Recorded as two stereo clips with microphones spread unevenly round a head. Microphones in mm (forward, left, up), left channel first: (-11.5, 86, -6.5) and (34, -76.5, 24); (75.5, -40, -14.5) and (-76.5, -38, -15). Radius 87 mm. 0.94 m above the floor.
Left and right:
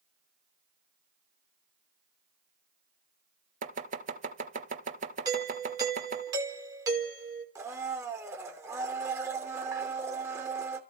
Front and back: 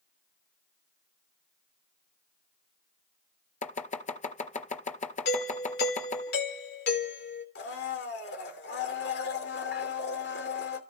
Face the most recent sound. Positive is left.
turn(degrees=0)